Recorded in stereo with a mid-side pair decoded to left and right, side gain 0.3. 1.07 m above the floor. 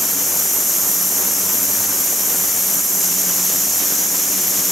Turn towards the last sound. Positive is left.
No sound to turn to.